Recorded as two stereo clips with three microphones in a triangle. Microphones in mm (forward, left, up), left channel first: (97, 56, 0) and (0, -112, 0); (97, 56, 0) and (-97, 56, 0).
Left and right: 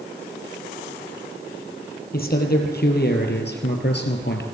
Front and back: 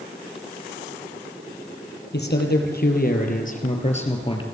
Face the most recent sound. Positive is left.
turn(degrees=60)